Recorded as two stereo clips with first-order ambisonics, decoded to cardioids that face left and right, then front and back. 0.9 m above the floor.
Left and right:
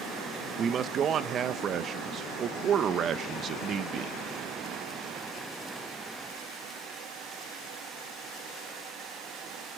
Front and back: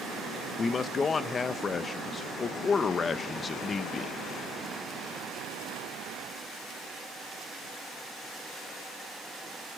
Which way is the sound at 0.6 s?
60° right.